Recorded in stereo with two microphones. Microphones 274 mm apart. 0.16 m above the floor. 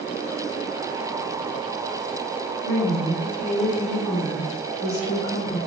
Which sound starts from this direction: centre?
A woman speaking, at 2.6 s.